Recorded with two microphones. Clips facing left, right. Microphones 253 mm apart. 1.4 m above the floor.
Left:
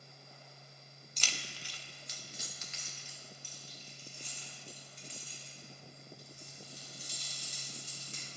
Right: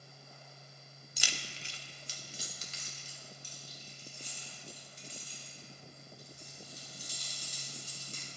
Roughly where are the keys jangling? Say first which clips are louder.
Right 1 dB; centre.